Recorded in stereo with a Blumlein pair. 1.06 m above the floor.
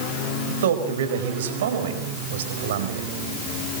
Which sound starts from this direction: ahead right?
A man speaking, at 0.5 s.